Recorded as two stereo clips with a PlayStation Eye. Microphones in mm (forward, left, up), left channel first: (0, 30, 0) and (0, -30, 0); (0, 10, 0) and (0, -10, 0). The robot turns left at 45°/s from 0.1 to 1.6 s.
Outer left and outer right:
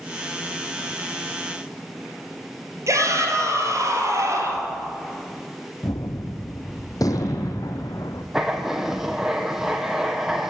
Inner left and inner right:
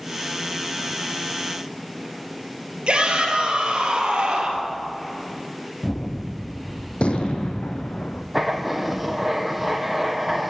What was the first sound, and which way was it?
A shout, 55° right (ahead or behind).